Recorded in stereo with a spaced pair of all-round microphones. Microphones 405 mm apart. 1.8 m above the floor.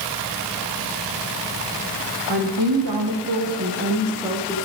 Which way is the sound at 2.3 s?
70° right (ahead or behind).